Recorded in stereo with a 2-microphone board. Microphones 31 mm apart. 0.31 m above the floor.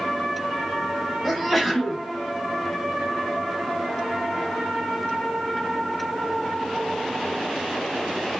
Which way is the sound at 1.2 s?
Centre (ahead or behind).